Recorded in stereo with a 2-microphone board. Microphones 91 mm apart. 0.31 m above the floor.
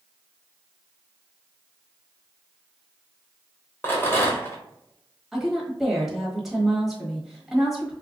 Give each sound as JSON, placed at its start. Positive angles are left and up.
{"t": 3.8, "sound": "a rattle", "side_deg": 25, "distance_m": 1.1}
{"t": 5.3, "sound": "a woman speaking", "side_deg": 0, "distance_m": 1.3}